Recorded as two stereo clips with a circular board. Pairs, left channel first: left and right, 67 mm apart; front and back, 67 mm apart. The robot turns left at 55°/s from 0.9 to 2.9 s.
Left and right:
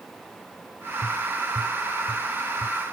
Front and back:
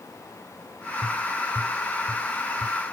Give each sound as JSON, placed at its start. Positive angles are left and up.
{"t": 1.0, "sound": "tapping", "azimuth_deg": -115, "distance_m": 1.8}